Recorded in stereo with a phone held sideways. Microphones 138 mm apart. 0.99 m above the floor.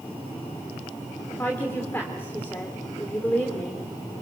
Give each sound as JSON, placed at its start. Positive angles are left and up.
{"t": 1.3, "sound": "a woman speaking", "side_deg": 15, "distance_m": 3.0}